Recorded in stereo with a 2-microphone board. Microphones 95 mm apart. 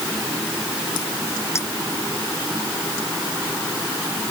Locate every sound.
1.6 s a clink: 30° left (ahead or behind)